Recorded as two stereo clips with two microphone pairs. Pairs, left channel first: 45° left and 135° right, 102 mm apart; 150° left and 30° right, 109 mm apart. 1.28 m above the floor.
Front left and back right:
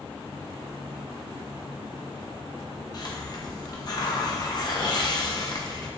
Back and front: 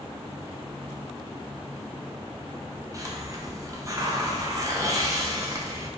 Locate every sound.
2.9 s a hiss: 15° left, 0.6 m